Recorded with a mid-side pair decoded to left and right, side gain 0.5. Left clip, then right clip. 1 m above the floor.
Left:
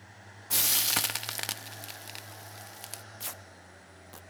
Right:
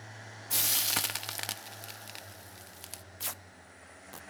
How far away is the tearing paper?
About 0.8 m.